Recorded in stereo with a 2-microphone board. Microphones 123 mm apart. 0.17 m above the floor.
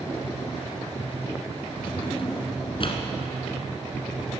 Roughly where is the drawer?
Left.